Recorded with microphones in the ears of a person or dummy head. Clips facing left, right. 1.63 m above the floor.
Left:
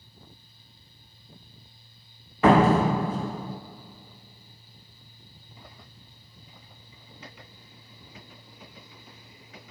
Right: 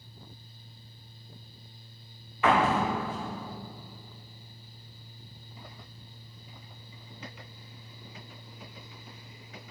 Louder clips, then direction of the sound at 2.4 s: Left 7 dB; 30° left (ahead or behind).